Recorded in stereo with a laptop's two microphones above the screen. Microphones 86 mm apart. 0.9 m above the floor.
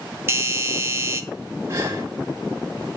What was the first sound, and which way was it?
A doorbell, 30° right (ahead or behind).